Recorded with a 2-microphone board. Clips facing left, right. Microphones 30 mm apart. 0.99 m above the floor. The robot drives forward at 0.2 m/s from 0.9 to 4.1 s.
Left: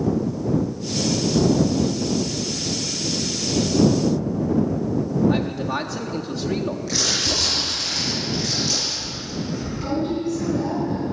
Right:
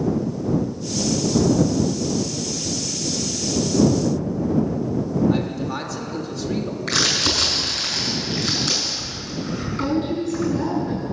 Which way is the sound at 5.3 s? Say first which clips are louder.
Even; 40° left (ahead or behind).